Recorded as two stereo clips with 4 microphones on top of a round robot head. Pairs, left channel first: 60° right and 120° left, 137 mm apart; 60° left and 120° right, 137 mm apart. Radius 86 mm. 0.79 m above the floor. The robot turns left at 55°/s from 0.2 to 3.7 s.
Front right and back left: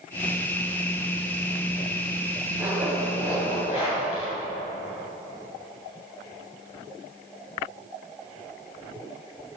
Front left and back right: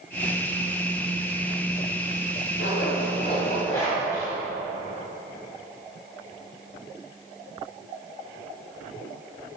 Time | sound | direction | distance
2.6 | a zipper | 50° left | 2.0 m